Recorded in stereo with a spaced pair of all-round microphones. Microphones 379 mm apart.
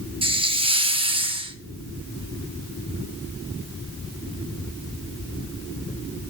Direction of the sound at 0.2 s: 15° right (ahead or behind).